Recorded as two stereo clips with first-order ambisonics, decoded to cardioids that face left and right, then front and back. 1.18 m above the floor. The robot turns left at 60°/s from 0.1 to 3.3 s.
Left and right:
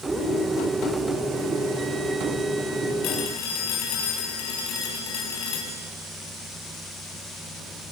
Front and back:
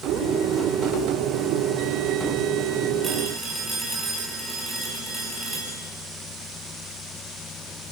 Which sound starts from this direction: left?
A phone ringing, at 3.0 s.